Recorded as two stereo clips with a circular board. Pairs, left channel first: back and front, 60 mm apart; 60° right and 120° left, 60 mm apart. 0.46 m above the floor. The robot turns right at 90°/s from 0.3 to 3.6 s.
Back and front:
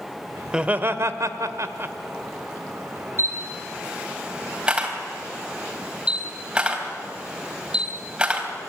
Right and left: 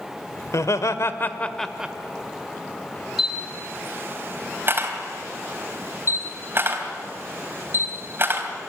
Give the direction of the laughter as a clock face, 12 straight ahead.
3 o'clock.